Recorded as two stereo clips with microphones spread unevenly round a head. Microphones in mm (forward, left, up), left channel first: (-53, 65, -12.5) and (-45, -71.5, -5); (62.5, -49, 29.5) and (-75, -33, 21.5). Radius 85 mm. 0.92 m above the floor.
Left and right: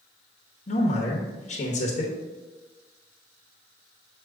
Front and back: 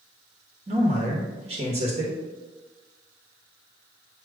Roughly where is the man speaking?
Behind left.